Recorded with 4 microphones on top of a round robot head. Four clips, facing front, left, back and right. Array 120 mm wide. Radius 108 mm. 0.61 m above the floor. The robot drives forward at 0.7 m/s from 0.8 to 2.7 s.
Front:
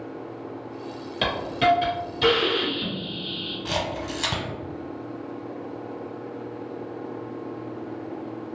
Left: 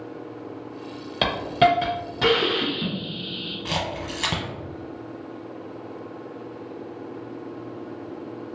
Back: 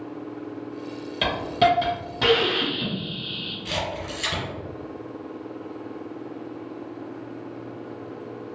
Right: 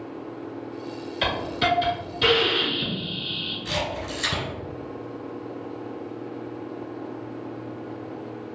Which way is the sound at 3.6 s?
55° left.